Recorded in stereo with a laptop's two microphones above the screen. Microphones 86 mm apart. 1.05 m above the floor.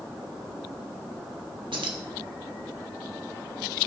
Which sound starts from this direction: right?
Keys jangling, at 1.7 s.